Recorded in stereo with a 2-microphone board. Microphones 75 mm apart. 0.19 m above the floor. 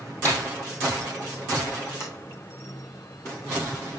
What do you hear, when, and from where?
0.2 s a snare drum: 25° left (ahead or behind), 4 m
2.0 s a sliding door: 40° left (ahead or behind), 2.5 m